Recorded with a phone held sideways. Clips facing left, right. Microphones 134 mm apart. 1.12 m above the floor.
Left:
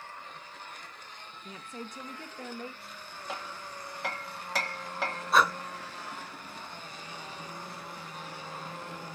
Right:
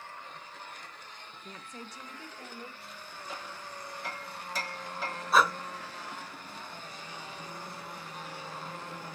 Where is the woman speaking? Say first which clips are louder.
Left 4 dB; 15° right (ahead or behind), 0.8 m; by 3.2 s 85° left, 2 m.